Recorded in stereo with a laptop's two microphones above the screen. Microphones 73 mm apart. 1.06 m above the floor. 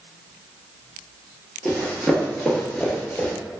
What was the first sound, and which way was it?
Running footsteps, 5° left (ahead or behind).